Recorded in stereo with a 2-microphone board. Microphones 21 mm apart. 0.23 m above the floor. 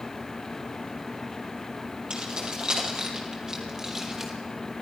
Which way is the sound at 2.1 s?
50° right (ahead or behind).